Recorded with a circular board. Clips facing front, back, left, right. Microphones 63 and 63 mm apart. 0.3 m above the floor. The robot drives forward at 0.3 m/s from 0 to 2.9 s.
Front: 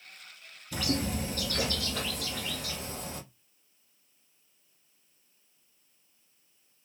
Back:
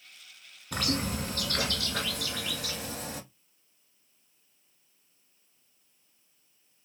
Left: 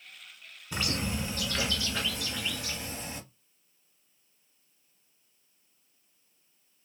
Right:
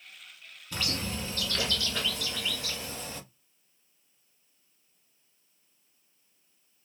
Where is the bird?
160° left, 1.0 m; by 3.2 s 170° left, 1.6 m.